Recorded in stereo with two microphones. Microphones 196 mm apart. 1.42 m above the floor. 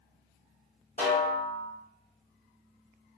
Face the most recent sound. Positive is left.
turn(degrees=50)  # may be behind; listen again after turning